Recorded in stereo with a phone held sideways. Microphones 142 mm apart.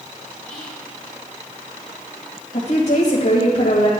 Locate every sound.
0.5 s whispering: 10° left (ahead or behind), 2 m
2.5 s a woman speaking: 75° left (ahead or behind), 1.8 m